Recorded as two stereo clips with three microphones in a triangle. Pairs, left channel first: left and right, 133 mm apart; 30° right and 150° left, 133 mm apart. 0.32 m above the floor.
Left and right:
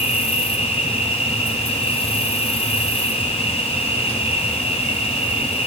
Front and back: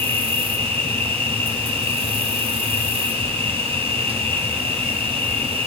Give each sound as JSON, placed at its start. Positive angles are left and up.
{"t": 0.0, "sound": "an insect", "azimuth_deg": 120, "distance_m": 2.0}